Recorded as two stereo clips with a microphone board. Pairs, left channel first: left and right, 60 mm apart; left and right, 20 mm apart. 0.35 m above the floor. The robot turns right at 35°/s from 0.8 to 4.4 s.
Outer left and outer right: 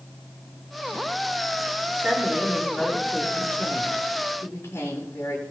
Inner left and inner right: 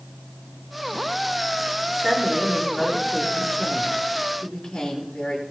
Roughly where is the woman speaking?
Ahead right.